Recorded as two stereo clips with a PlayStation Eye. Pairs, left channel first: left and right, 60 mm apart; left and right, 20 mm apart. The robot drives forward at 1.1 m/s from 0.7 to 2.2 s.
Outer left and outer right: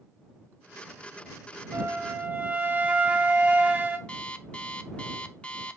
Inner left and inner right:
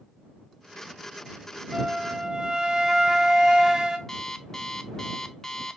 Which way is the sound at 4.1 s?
20° left (ahead or behind).